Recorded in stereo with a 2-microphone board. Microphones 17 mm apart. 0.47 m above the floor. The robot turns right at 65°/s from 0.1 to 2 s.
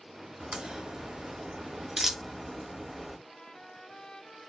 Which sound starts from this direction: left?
A trumpet, at 3.3 s.